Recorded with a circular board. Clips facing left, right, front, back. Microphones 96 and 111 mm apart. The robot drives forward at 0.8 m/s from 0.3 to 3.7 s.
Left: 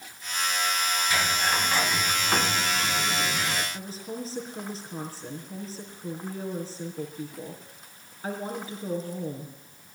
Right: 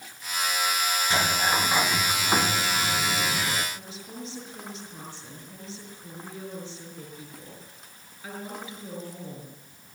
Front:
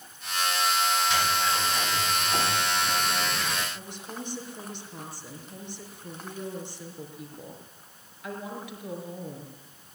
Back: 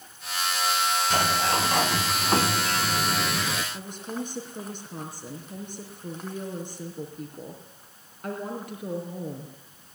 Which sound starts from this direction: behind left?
A woman speaking, at 3.7 s.